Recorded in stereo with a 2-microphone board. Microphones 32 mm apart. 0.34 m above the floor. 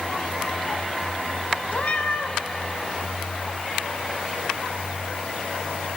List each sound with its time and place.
1.7 s a cat meowing: 45° left (ahead or behind), 0.6 m